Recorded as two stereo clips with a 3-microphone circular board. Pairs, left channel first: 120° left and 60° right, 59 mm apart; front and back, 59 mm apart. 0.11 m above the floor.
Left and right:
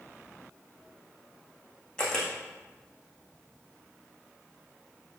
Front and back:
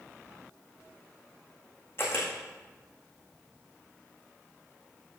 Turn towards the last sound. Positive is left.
turn(degrees=45)